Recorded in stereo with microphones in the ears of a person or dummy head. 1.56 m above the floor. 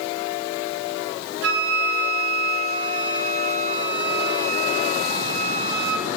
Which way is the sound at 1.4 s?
60° right (ahead or behind).